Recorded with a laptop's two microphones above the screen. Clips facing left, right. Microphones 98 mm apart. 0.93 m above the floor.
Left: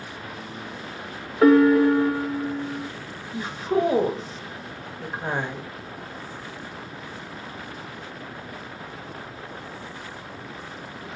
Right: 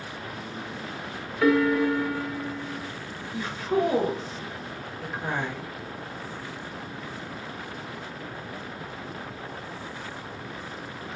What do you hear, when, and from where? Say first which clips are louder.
1.4 s a piano: left 6 dB; 40° left (ahead or behind), 0.5 m
3.3 s a woman speaking: left 2 dB; 25° left (ahead or behind), 0.8 m